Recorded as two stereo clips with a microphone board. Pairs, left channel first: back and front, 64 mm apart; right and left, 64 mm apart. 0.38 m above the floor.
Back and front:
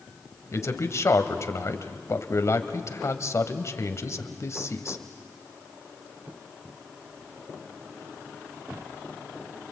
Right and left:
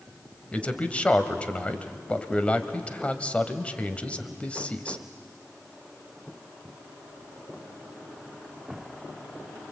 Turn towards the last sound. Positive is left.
turn(degrees=-155)